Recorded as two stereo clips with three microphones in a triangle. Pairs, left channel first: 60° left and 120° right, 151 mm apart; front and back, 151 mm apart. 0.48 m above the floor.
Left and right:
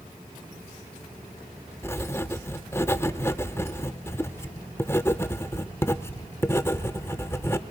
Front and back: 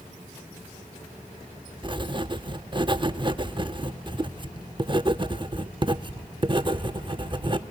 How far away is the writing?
About 0.5 m.